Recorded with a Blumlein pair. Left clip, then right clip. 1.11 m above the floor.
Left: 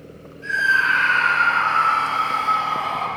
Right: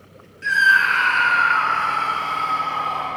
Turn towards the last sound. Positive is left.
turn(degrees=25)